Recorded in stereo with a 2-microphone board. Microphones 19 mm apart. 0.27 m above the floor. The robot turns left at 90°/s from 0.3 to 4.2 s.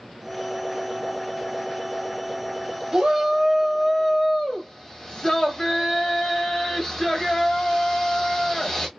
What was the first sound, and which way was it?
A shout, 120° right.